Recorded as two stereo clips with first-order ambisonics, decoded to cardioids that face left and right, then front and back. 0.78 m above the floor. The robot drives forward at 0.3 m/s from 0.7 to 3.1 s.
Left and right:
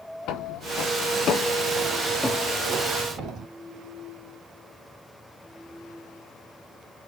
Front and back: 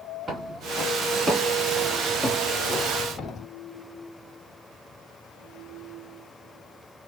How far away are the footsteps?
About 1.3 m.